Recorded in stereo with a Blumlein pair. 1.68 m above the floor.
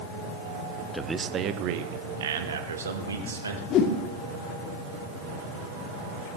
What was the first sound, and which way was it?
A man speaking, straight ahead.